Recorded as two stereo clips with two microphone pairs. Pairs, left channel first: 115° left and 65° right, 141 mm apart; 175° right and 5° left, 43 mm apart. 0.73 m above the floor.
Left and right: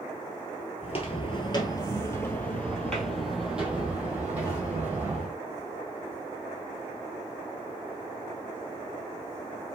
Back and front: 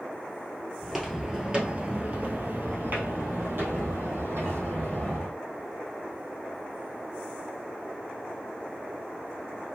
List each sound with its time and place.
0.8 s footsteps: 90° left, 1.1 m; by 5.3 s 5° left, 2.5 m